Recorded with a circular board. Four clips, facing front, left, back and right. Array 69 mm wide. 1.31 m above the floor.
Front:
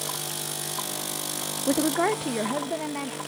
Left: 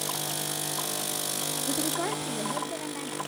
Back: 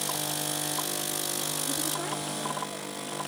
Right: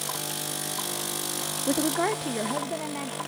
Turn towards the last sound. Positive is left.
turn(degrees=-20)